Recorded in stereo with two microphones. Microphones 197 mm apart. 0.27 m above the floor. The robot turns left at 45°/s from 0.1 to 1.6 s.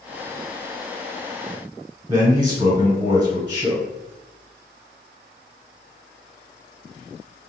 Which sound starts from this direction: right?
A man speaking, at 2.1 s.